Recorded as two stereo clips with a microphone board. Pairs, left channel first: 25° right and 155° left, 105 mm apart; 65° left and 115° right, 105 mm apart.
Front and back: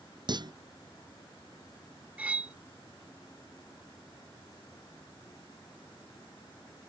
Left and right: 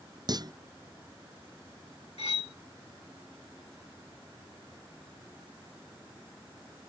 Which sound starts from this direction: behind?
A clunk, at 0.3 s.